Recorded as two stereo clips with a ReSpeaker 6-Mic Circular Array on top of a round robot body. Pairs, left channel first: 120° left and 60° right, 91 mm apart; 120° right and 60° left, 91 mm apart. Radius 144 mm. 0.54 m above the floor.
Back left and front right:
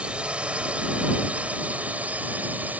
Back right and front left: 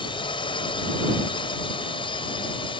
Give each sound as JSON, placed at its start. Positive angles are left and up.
{"t": 0.0, "sound": "a drone", "azimuth_deg": -135}